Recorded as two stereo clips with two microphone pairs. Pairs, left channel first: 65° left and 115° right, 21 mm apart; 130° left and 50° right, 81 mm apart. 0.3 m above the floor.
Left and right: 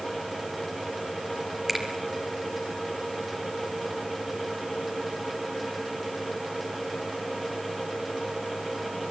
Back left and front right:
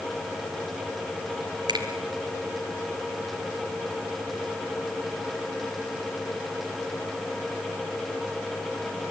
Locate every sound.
1.7 s a finger snap: 40° right, 4 m